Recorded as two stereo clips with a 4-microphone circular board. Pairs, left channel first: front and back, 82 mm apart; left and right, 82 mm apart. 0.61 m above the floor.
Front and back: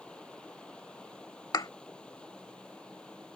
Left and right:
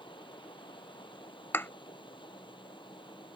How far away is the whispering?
No whispering in this recording.